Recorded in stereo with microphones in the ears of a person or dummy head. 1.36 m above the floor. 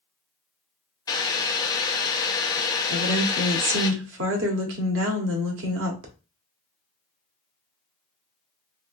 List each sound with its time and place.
1.1 s boiling: 25° left (ahead or behind), 0.8 m
2.9 s a woman speaking: 75° right (ahead or behind), 1.0 m